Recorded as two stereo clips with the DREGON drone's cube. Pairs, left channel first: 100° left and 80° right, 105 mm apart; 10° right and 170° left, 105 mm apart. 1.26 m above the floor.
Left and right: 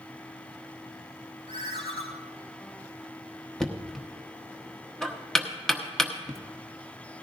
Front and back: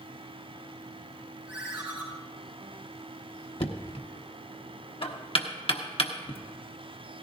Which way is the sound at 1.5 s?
95° left.